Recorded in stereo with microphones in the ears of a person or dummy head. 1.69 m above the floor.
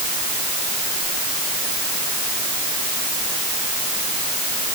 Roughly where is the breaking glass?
No breaking glass in this recording.